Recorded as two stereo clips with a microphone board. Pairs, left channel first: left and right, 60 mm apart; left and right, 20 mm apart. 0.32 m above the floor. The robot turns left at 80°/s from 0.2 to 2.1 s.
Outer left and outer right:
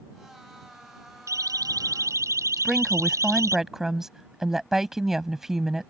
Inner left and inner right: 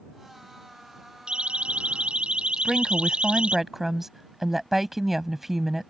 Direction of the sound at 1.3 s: 60° right (ahead or behind).